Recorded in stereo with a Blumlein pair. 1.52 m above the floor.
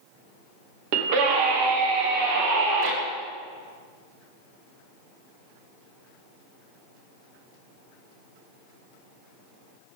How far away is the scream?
About 2 m.